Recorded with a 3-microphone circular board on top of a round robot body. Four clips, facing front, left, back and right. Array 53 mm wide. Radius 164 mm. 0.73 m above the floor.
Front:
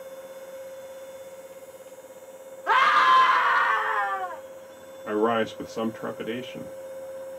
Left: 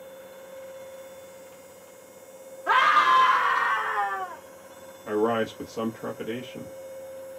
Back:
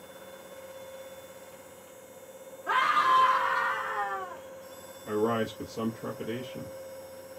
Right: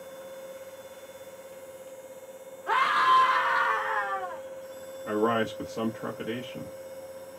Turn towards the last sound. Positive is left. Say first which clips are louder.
# left 1 dB, front 5 dB
turn(degrees=0)